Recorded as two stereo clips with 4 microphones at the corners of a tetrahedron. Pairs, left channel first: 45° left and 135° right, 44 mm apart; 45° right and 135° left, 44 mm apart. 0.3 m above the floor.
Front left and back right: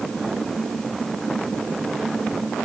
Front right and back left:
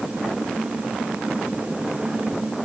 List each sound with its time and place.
Only background noise.